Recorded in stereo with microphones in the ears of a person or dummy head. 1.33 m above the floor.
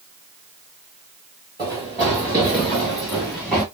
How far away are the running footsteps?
About 1.8 m.